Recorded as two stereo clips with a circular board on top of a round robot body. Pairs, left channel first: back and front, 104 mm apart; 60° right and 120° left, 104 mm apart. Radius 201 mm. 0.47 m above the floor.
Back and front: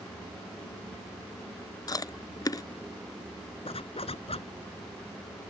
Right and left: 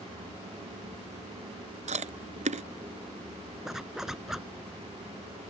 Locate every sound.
1.9 s chewing: 125° left
3.6 s a zipper: 155° right